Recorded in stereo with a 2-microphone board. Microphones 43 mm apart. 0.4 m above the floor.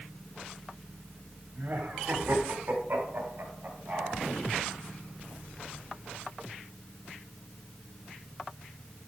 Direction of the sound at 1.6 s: 45° right (ahead or behind).